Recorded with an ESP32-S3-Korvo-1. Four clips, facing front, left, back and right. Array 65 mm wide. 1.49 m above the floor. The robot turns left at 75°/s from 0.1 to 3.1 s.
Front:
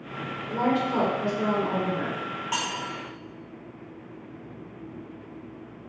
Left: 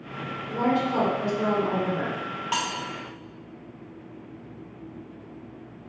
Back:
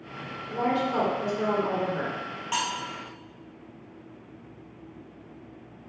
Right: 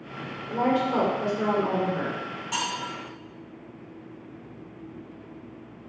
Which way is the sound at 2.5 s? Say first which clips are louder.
Left 1 dB, back 2 dB; 100° left.